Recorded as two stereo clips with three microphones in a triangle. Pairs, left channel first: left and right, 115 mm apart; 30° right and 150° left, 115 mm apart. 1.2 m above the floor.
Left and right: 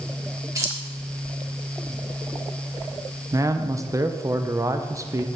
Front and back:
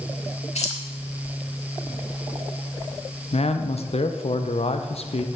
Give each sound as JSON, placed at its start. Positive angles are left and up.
{"t": 0.6, "sound": "keys jangling", "azimuth_deg": -30, "distance_m": 1.4}
{"t": 3.3, "sound": "a man speaking", "azimuth_deg": -30, "distance_m": 0.6}